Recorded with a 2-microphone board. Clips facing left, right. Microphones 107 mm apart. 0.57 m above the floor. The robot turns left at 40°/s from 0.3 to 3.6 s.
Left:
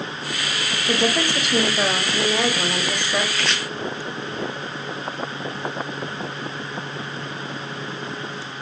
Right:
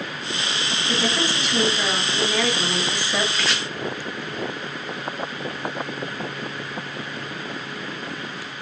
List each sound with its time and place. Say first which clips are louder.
0.9 s a woman speaking: left 4 dB; 100° left, 1.1 m; by 3.2 s 10° left, 1.1 m
3.3 s chopping: even; 5° right (ahead or behind), 1.1 m; by 3.6 s 5° left (ahead or behind), 1.1 m